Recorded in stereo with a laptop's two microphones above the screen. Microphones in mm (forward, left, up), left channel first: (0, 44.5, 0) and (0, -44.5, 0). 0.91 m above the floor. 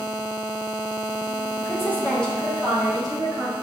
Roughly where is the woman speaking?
Left.